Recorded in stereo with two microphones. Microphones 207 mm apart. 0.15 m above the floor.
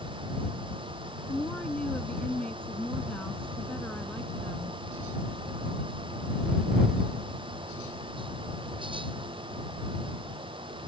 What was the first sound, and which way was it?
A woman speaking, 5° left (ahead or behind).